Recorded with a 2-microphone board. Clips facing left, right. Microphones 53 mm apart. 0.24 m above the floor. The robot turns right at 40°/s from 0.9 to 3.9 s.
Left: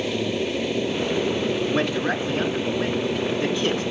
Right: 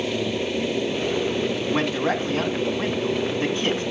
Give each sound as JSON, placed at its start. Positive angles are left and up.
{"t": 1.7, "sound": "a man speaking", "azimuth_deg": -125, "distance_m": 2.0}